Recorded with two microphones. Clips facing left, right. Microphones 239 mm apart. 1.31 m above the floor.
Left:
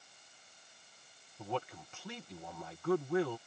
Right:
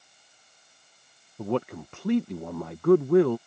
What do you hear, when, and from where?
1.4 s a man speaking: 65° right (ahead or behind)